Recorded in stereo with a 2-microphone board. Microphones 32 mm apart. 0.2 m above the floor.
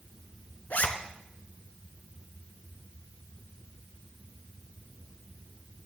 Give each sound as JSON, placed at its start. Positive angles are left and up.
{"t": 0.7, "sound": "a zipper", "side_deg": 60, "distance_m": 0.9}